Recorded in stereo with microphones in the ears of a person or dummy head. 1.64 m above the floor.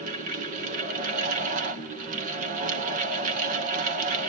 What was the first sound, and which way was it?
A fan, 45° right (ahead or behind).